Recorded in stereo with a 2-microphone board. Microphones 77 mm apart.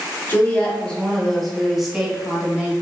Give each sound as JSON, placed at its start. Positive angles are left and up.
{"t": 0.3, "sound": "a woman speaking", "side_deg": 25, "distance_m": 1.5}